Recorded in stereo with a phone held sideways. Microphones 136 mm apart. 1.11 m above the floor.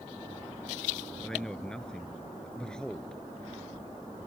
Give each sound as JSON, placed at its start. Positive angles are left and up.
{"t": 1.2, "sound": "a man speaking", "side_deg": 5}